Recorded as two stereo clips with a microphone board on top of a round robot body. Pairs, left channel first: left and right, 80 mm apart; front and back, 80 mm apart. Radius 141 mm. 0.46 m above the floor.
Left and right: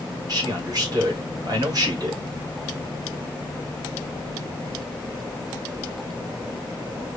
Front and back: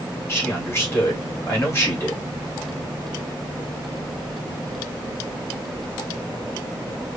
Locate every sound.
0.3 s a man speaking: 60° right, 3 m